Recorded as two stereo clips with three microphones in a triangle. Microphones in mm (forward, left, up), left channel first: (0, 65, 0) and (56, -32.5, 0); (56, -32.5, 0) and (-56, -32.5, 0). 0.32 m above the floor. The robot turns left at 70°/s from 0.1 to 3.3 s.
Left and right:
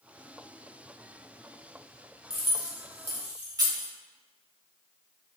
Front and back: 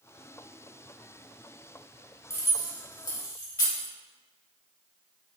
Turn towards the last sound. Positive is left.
turn(degrees=-30)